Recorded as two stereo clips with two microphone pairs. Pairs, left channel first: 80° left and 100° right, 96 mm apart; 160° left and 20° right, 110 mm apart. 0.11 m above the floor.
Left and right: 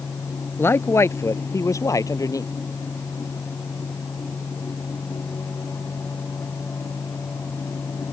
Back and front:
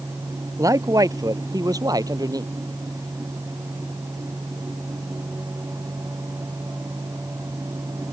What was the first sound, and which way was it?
A man speaking, 25° left.